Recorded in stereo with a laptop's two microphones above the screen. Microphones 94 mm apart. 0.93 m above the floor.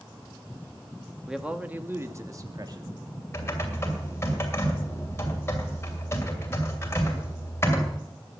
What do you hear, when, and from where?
1.3 s a man speaking: 5° right (ahead or behind), 1.8 m; by 2.9 s 50° right (ahead or behind), 2.5 m
3.3 s typing on a keyboard: 30° left (ahead or behind), 2.5 m